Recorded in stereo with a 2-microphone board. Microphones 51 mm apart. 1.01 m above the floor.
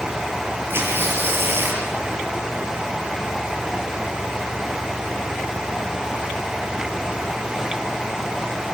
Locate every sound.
0.7 s tearing paper: 50° right (ahead or behind), 4.5 m